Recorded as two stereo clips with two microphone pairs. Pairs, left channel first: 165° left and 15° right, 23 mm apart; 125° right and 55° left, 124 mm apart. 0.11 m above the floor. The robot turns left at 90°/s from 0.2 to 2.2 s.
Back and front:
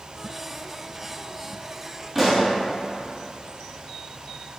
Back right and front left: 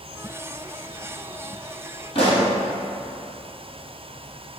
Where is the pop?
90° right, 1.1 m; by 2.5 s 95° right, 1.1 m.